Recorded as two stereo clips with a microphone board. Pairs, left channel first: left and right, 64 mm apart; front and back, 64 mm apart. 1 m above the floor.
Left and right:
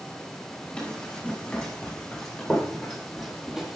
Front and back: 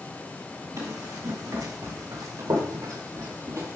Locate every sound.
0.8 s running footsteps: 165° left, 3.5 m; by 3.8 s 165° right, 1.4 m